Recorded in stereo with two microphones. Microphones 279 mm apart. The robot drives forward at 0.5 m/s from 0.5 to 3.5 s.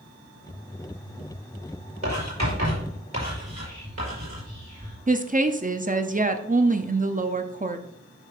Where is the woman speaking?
30° right (ahead or behind), 0.6 m.